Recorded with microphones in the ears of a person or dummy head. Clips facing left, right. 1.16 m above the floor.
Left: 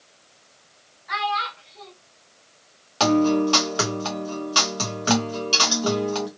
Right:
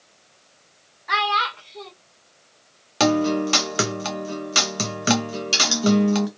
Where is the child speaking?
65° right (ahead or behind), 0.5 m.